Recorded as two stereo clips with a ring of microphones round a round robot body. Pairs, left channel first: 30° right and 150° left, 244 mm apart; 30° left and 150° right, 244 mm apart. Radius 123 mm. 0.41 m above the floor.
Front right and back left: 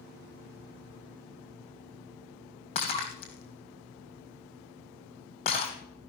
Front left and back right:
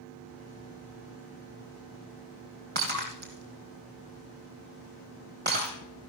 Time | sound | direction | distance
2.8 | breaking glass | 95° right | 2.5 m